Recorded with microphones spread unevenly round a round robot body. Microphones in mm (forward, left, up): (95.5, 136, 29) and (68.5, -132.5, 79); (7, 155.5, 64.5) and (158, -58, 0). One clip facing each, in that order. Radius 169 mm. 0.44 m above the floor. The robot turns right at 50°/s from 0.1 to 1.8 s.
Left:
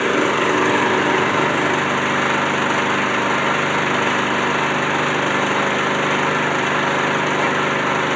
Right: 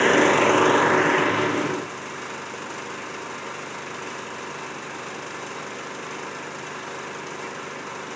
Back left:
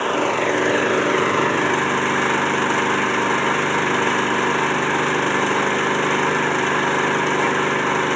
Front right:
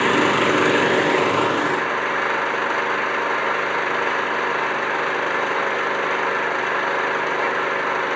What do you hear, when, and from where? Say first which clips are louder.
0.0 s an engine running: even, front right 2 dB; straight ahead; by 8.2 s 85° left